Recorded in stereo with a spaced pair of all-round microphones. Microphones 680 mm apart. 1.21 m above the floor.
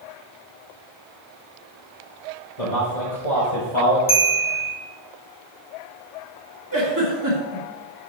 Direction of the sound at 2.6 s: 60° left (ahead or behind).